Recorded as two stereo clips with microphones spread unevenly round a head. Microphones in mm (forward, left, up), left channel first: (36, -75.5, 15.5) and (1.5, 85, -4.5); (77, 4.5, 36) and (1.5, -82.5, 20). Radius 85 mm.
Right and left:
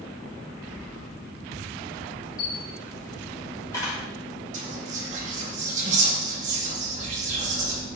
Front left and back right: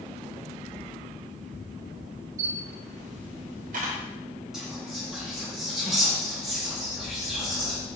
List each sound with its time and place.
2.4 s a camera shutter: 145° right, 1.6 m
4.5 s whispering: 145° left, 1.6 m